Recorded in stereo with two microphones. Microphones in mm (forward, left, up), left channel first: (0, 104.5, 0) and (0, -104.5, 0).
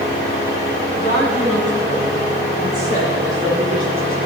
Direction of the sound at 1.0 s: 55° right (ahead or behind).